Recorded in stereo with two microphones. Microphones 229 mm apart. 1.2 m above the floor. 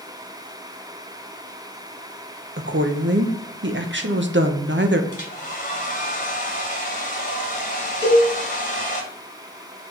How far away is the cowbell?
About 2 m.